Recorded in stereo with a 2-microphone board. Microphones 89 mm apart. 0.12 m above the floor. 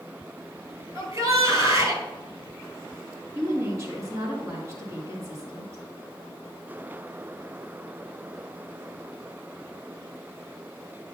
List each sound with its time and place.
0.9 s a shout: 40° right (ahead or behind), 2 m
3.4 s a woman speaking: 40° right (ahead or behind), 2 m